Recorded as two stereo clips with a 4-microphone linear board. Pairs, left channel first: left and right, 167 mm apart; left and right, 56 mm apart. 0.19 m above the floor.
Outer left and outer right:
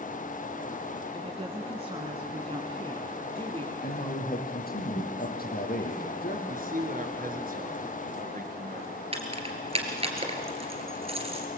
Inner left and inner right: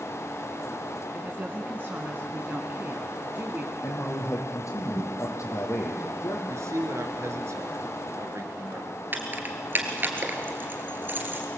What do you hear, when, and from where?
1.1 s a woman speaking: 40° right (ahead or behind), 2.5 m
3.8 s a man speaking: 75° left (ahead or behind), 5.5 m
6.5 s a man speaking: 60° right (ahead or behind), 3 m
9.1 s keys jangling: 40° right (ahead or behind), 2.5 m